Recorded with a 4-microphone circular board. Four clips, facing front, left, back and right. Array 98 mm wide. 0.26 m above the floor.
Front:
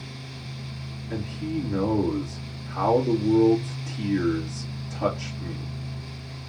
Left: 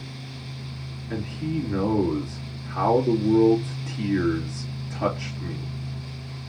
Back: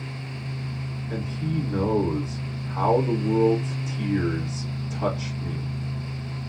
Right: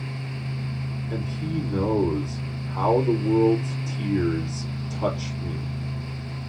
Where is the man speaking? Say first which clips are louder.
Left 2 dB, even; 85° left, 3.5 m.